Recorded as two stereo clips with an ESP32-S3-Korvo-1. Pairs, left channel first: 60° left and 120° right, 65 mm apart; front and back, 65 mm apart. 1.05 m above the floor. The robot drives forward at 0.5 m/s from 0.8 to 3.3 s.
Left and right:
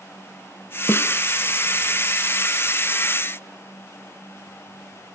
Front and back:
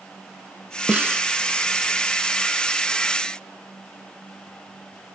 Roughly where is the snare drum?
Behind left.